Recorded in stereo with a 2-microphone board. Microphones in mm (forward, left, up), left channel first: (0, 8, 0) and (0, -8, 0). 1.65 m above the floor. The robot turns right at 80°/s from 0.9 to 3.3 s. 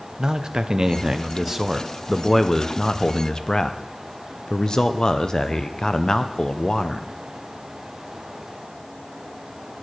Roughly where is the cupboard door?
I don't hear a cupboard door.